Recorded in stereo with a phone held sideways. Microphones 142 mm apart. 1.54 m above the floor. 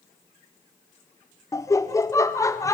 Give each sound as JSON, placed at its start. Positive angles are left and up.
{"t": 1.5, "sound": "laughter", "side_deg": 20, "distance_m": 0.6}